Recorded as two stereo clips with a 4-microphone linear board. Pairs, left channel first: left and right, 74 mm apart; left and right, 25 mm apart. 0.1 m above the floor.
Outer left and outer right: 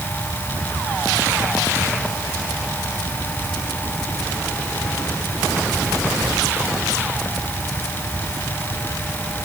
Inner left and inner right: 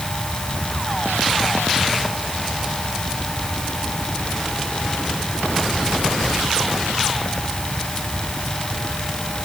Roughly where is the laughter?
No laughter in this recording.